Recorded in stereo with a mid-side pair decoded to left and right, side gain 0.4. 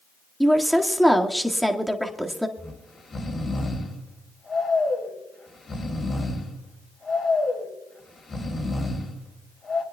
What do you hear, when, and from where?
0.4 s a woman speaking: straight ahead, 1.9 m
2.6 s snoring: 45° left, 3.5 m